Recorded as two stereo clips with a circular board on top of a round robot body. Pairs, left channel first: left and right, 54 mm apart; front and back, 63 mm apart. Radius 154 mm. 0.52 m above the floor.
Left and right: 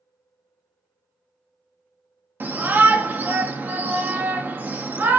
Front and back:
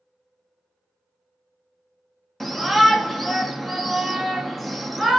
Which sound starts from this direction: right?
A shout, at 2.4 s.